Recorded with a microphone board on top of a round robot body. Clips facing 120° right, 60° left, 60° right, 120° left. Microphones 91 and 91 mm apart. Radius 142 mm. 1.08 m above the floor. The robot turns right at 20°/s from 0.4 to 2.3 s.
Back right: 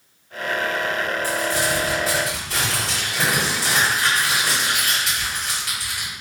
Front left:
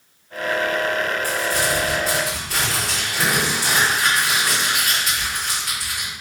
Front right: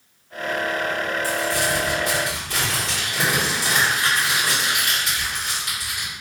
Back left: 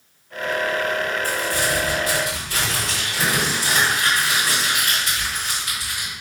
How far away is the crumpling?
About 1.9 m.